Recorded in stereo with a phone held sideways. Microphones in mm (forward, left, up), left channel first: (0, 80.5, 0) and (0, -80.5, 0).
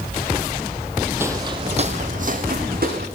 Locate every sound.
1.2 s footsteps: 15° right (ahead or behind), 1.2 m; by 3.1 s 65° right (ahead or behind), 3 m